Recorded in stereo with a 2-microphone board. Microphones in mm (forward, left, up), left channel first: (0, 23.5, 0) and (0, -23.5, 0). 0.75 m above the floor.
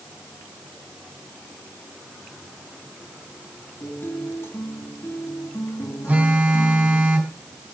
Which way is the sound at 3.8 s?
70° left (ahead or behind).